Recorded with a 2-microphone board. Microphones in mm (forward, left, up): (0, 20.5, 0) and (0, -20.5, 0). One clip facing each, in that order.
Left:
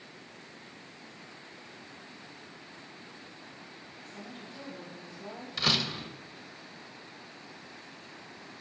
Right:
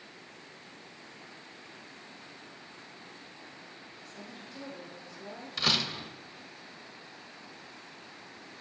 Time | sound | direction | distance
4.0 | a woman speaking | 35° left (ahead or behind) | 2.5 m
5.6 | a door slam | centre (ahead or behind) | 0.6 m